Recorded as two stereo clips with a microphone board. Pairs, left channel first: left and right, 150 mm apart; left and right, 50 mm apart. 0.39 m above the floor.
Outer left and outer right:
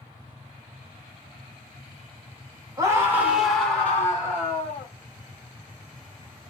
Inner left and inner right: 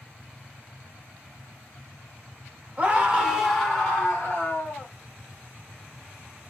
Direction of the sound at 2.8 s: 25° right (ahead or behind).